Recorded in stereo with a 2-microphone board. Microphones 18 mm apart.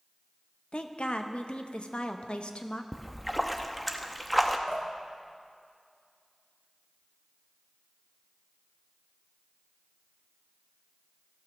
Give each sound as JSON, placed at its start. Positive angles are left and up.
{"t": 0.7, "sound": "a woman speaking", "side_deg": 75, "distance_m": 0.6}
{"t": 2.9, "sound": "a splash", "side_deg": 5, "distance_m": 0.6}
{"t": 4.7, "sound": "dripping", "side_deg": -55, "distance_m": 1.2}